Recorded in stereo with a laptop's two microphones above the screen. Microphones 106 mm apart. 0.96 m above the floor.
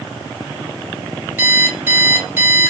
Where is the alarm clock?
20° right (ahead or behind), 1.6 m.